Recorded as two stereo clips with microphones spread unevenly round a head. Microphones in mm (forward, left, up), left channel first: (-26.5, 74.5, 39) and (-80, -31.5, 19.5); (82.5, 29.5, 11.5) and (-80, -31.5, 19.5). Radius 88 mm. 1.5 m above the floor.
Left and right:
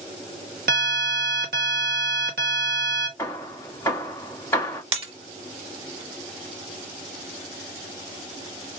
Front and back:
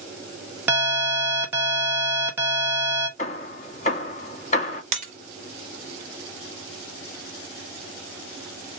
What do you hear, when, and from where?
0.7 s an alarm: 80° right, 1.3 m
3.2 s hammering: 10° left, 1.0 m
4.9 s breaking glass: 140° right, 1.7 m